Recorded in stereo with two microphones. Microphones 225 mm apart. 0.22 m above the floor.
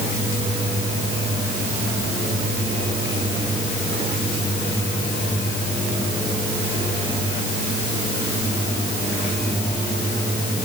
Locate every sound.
Only background noise.